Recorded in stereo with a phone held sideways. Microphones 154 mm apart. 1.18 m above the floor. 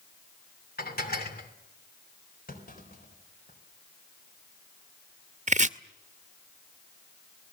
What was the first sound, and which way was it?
Dishes clattering, 75° left (ahead or behind).